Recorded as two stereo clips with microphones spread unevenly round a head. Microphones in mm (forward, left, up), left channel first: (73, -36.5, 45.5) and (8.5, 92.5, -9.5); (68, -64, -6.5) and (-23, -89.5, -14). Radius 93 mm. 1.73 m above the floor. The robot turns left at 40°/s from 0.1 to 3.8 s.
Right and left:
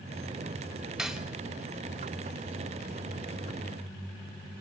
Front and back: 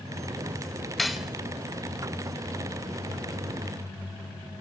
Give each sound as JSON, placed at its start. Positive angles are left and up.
{"t": 1.0, "sound": "cutlery clinking", "azimuth_deg": -55, "distance_m": 1.0}